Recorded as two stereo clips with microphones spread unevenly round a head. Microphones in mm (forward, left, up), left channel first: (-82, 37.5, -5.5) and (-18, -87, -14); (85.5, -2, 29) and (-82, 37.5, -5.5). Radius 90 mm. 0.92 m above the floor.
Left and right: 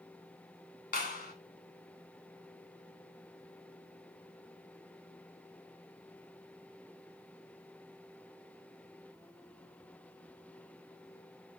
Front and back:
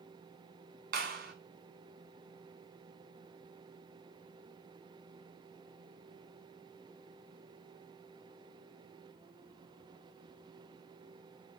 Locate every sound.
0.9 s a clap: 130° left, 3.5 m